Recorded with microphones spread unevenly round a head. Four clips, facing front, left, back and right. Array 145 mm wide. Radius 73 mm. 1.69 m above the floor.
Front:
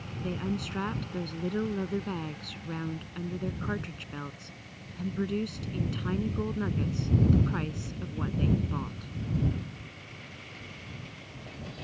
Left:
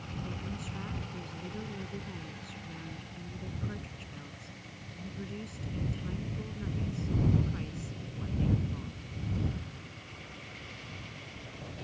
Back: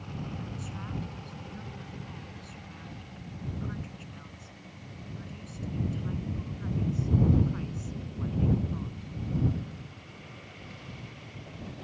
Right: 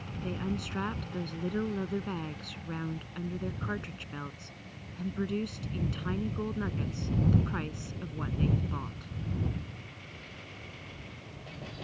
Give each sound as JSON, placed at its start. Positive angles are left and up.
{"t": 0.2, "sound": "a woman speaking", "azimuth_deg": -30}